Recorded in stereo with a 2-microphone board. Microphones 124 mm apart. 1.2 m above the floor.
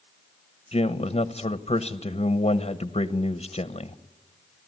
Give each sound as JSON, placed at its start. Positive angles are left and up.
{"t": 0.7, "sound": "a man speaking", "side_deg": 55, "distance_m": 1.0}